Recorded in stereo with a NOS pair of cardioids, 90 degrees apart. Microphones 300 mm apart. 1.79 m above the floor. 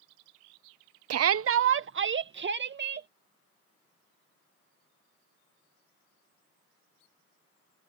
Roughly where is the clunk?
I don't hear a clunk.